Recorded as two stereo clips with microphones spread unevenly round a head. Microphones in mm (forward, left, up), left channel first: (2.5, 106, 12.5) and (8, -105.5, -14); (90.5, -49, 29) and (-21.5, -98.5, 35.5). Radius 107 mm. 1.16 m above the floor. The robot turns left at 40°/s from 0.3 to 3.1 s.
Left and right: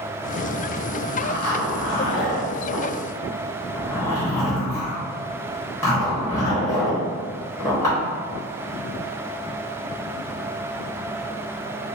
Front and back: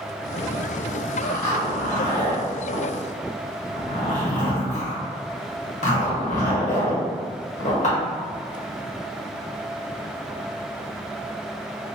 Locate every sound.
1.2 s a zipper: 95° left, 1.2 m; by 8.0 s 15° left, 1.2 m